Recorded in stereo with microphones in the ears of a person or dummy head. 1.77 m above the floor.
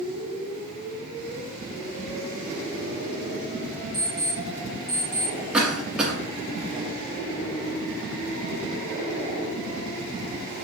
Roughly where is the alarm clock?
Left.